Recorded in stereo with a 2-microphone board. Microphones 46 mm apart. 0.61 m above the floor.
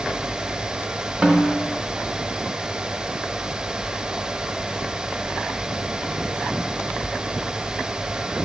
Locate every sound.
1.2 s a snare drum: 20° right (ahead or behind), 1.1 m